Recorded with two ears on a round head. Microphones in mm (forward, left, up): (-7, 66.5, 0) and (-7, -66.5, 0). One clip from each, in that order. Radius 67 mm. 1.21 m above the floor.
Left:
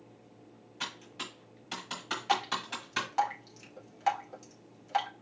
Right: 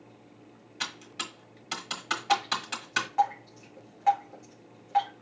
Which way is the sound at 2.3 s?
70° left (ahead or behind).